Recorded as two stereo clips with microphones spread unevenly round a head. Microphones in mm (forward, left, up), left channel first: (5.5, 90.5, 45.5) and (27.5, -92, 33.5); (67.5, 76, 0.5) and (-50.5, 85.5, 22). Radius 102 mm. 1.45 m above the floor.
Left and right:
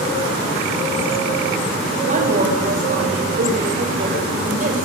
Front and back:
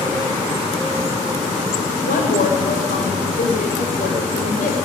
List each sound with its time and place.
2.0 s a woman speaking: 35° right, 7 m